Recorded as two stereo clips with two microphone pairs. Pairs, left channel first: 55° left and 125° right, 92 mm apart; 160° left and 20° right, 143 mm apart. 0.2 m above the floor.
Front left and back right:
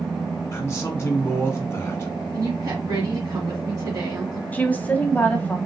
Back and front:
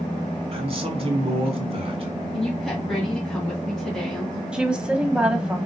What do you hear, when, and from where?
0.5 s a man speaking: 5° left, 1.8 m
2.3 s a woman speaking: 115° right, 1.9 m
4.5 s a woman speaking: 55° left, 1.0 m